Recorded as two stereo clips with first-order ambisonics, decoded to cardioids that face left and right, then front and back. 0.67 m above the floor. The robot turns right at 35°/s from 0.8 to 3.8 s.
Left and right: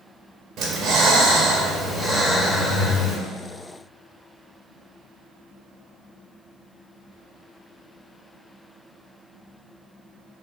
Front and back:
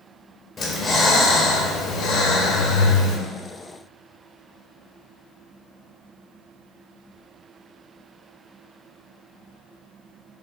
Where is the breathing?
55° right, 0.7 m; by 3.2 s 30° left, 0.7 m.